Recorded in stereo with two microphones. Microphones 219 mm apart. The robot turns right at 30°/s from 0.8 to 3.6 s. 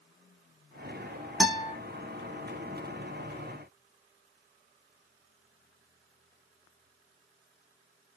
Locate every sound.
1.4 s a guitar: centre (ahead or behind), 0.7 m; by 1.8 s 5° right (ahead or behind), 0.7 m